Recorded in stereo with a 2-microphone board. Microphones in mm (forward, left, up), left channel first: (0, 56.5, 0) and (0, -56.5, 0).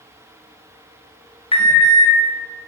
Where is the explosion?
No explosion in this recording.